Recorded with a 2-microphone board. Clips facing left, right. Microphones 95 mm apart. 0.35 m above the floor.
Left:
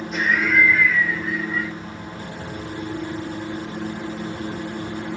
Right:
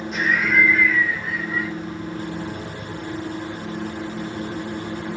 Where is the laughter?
Centre (ahead or behind), 1.2 m.